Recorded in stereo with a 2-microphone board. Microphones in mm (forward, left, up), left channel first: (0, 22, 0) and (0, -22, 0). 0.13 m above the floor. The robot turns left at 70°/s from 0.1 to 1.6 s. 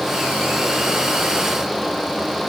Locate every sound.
Only background noise.